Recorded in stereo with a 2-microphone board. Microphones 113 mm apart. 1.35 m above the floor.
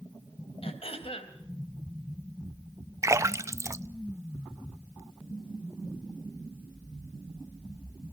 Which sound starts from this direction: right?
A splash, at 3.0 s.